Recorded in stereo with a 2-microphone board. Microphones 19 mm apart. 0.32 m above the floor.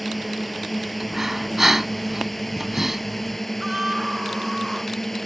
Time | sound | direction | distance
0.0 | a drone | centre (ahead or behind) | ?
1.0 | breathing | 20° right (ahead or behind) | ?
3.6 | a scream | 20° right (ahead or behind) | ?